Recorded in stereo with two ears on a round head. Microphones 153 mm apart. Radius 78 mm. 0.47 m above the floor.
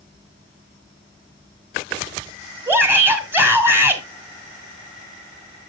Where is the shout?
10° right (ahead or behind), 1.6 m.